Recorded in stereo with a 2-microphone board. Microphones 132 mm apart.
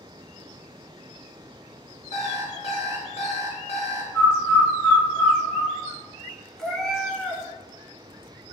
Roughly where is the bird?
Centre.